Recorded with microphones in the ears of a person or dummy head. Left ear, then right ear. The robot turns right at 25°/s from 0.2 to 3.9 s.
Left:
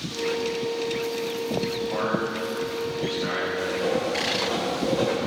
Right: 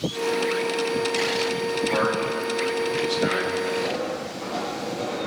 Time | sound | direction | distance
1.9 | a man speaking | 65° right (ahead or behind) | 4 m
3.6 | writing | 65° left (ahead or behind) | 3 m